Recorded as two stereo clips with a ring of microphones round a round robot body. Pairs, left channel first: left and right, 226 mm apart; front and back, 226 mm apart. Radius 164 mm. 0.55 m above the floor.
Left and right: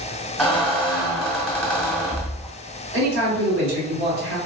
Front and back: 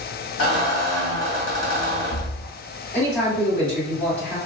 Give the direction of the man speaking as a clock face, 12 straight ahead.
3 o'clock.